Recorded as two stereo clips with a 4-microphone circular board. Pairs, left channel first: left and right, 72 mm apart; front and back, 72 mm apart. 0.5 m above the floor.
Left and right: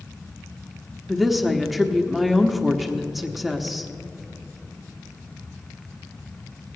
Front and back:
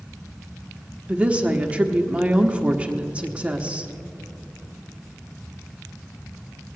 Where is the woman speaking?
Straight behind, 0.9 m.